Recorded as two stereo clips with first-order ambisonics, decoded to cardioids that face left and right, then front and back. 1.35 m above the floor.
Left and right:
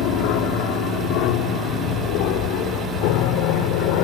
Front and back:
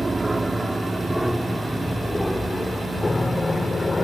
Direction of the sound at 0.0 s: 100° left.